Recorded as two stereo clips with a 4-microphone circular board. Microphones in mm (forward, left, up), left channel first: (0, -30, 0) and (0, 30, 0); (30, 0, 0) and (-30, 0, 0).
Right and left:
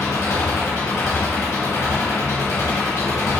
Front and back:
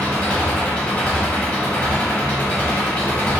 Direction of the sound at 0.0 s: 70° right.